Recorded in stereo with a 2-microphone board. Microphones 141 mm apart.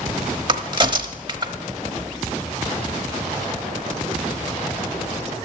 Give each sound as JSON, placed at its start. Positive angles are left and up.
{"t": 0.5, "sound": "a crack", "side_deg": -35, "distance_m": 1.0}